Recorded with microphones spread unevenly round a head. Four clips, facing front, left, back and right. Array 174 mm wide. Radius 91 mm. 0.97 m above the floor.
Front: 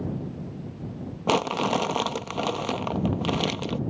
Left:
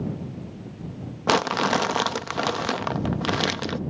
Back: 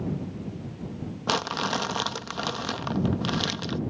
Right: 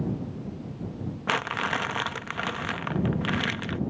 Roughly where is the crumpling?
Ahead left.